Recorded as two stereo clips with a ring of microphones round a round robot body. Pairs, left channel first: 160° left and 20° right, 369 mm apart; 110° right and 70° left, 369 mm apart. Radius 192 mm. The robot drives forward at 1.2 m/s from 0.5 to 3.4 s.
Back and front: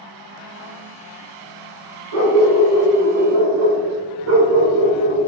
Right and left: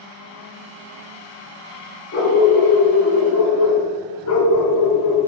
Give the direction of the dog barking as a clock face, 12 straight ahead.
2 o'clock.